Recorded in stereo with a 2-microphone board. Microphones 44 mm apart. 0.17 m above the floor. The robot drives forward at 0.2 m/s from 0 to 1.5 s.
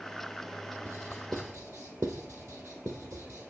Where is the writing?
80° right, 1.7 m.